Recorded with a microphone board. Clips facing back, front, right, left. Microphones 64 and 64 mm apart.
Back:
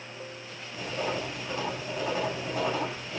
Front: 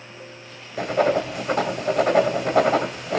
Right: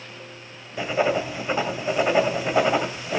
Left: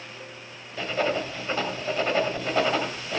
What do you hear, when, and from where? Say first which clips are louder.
0.8 s writing: front 12 dB, right 4 dB; 15° right, 2.5 m